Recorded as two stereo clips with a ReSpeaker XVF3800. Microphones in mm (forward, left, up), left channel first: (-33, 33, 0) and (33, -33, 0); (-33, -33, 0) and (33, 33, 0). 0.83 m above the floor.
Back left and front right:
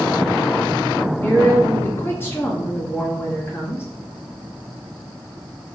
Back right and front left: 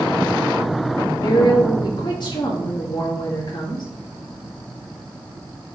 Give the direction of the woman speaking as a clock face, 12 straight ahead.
5 o'clock.